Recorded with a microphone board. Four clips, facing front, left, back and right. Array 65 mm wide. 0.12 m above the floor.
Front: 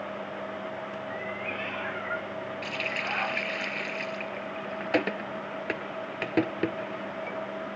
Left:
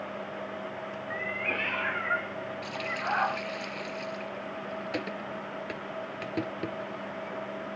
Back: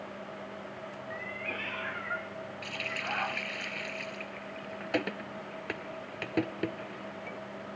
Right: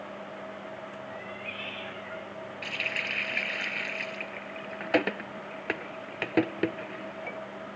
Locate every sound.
1.1 s a cat meowing: 90° left; by 3.4 s 85° left
2.6 s a running tap: 60° right